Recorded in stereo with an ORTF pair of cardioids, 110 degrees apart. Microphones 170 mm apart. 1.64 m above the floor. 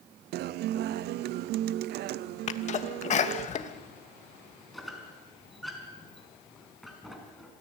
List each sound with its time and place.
0.3 s a guitar: 70° right, 0.7 m
2.5 s a sneeze: 45° left, 2.5 m
4.7 s a squeak: straight ahead, 5 m